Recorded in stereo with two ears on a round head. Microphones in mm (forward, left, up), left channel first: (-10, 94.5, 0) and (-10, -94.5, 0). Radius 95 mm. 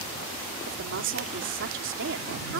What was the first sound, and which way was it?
A woman speaking, 65° right (ahead or behind).